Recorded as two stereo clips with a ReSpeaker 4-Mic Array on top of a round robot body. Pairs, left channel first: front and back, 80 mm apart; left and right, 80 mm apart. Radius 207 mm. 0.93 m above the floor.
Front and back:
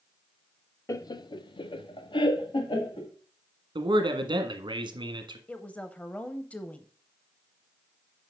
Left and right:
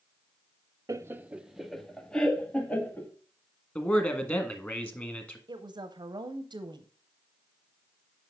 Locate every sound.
0.9 s laughter: 45° right, 0.7 m; by 3.1 s 20° left, 2 m
3.8 s a man speaking: 160° left, 1.6 m
5.5 s a woman speaking: 70° right, 0.8 m